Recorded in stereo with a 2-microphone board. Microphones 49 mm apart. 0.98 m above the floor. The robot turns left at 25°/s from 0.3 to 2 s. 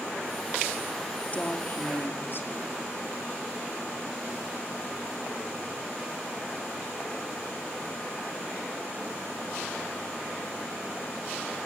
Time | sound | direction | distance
1.3 | a woman speaking | 30° left (ahead or behind) | 2 m